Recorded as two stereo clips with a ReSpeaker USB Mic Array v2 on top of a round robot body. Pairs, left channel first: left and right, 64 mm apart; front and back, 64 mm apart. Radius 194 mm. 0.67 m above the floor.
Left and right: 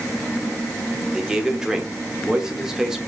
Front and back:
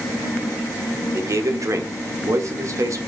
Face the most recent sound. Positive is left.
turn(degrees=-170)